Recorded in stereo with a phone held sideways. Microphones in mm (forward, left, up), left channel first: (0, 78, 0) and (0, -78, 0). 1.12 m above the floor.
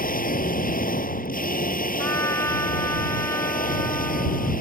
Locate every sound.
0.0 s a machine running: 65° left (ahead or behind)
2.0 s a trumpet: 15° left (ahead or behind)